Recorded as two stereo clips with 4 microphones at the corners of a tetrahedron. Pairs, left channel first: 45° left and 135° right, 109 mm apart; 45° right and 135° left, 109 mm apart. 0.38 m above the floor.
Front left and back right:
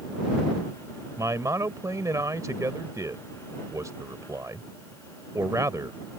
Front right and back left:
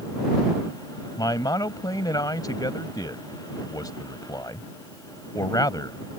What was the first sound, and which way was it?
A man speaking, 85° right.